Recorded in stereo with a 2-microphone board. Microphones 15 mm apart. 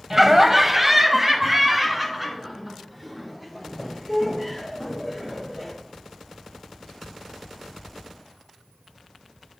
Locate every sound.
0.1 s laughter: 20° right (ahead or behind), 1.1 m; by 5.7 s 10° right (ahead or behind), 6.5 m